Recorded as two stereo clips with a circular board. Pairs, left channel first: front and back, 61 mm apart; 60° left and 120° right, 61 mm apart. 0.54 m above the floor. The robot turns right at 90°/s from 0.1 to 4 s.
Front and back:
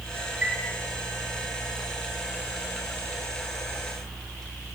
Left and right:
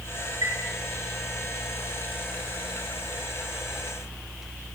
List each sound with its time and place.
0.4 s a chime: 115° right, 3.5 m; by 0.6 s 100° right, 3.5 m